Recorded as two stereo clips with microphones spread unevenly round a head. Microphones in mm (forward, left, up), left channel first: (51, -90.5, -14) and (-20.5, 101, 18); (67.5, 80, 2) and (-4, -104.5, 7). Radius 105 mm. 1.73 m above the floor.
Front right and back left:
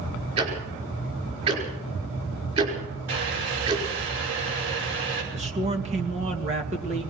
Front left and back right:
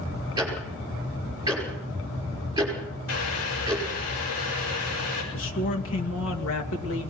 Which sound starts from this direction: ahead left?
A man speaking, at 5.3 s.